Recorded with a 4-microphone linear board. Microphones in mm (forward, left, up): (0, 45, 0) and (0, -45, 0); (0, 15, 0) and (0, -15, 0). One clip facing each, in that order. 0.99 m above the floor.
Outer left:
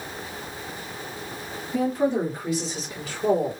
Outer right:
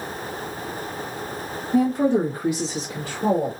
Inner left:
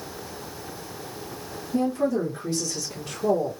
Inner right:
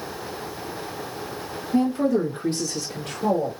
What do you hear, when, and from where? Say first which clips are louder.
1.7 s a woman speaking: outer right 4 dB, inner right 3 dB; 50° right (ahead or behind), 1.7 m; by 3.5 s 70° right (ahead or behind), 1.9 m